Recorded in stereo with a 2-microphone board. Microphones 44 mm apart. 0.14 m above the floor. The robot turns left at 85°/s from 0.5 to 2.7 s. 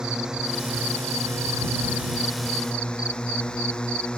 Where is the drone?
15° right (ahead or behind); by 4.2 s 20° left (ahead or behind).